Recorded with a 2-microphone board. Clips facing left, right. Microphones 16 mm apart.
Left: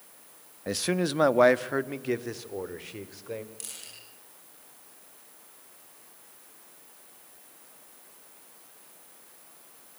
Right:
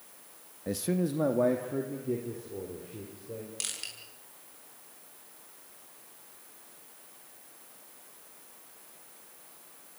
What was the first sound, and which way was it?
A man speaking, 30° left (ahead or behind).